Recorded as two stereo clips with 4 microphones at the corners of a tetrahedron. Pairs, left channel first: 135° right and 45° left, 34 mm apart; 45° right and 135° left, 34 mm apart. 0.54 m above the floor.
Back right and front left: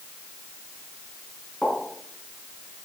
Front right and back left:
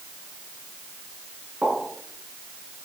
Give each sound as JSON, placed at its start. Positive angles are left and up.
{"t": 1.6, "sound": "a pop", "azimuth_deg": 180, "distance_m": 6.5}